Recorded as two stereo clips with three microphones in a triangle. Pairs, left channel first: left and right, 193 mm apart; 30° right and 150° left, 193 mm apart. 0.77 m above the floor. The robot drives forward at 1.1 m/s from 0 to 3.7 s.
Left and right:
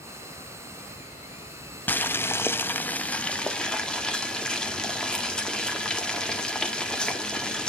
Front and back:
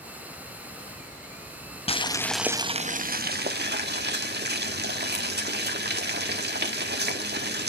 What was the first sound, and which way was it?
Boiling, 10° left.